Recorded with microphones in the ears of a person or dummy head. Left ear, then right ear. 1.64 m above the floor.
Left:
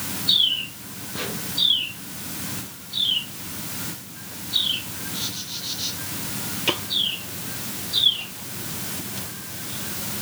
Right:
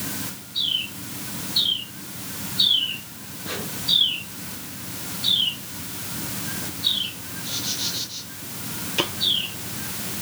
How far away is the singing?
No singing in this recording.